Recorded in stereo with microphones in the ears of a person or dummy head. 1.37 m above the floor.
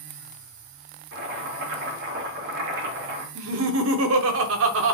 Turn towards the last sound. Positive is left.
turn(degrees=-80)